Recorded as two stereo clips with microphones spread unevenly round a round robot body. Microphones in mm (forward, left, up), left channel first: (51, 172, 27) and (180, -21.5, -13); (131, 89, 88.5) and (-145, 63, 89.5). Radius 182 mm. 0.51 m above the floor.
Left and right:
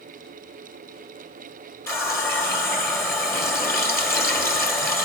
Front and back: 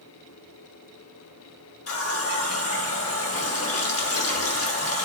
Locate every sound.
1.9 s a running tap: 40° left, 1.8 m